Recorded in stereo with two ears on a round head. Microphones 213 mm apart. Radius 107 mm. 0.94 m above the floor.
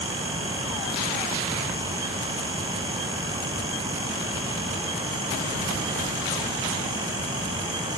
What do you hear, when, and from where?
Only background noise.